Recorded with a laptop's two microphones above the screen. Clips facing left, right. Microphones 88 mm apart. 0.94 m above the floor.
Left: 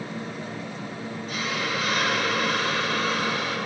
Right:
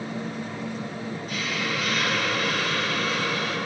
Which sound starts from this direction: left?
A hiss, at 1.3 s.